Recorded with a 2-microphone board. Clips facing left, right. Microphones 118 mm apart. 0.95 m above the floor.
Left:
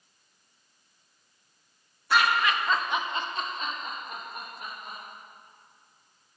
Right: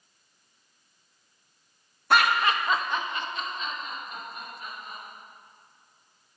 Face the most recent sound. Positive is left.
turn(degrees=60)  # may be behind; listen again after turning